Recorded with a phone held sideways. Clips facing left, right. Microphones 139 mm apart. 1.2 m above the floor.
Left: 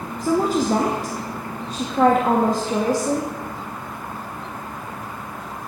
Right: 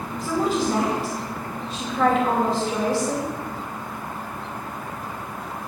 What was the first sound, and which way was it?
A woman speaking, 45° left (ahead or behind).